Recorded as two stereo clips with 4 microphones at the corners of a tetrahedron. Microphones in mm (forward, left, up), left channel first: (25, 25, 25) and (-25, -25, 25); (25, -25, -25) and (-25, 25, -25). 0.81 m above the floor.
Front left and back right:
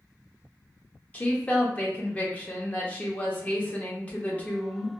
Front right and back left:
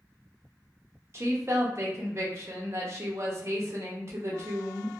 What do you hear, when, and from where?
1.1 s a woman speaking: 105° left, 0.7 m